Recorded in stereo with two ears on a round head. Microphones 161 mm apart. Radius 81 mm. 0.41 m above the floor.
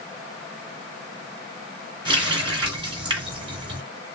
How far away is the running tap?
About 1.9 m.